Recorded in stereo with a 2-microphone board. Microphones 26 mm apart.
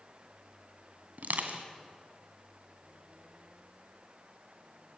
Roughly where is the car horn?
No car horn in this recording.